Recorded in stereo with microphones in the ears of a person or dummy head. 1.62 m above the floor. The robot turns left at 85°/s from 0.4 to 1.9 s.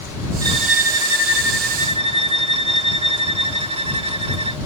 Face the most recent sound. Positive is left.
turn(degrees=-140)